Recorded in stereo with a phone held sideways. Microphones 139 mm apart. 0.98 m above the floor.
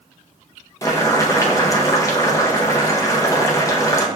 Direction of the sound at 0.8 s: 25° left (ahead or behind).